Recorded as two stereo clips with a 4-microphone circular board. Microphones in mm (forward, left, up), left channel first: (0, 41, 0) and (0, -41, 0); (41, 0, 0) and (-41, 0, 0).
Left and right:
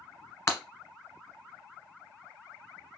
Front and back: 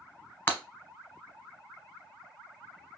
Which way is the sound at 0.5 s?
55° left.